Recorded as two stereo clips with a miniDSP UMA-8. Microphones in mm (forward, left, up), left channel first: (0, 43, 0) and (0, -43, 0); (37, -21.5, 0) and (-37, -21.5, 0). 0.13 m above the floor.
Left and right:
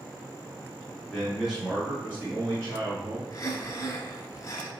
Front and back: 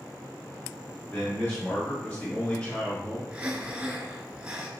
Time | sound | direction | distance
1.1 | a man speaking | 5° left | 1.5 m
3.3 | breathing | 115° left | 0.8 m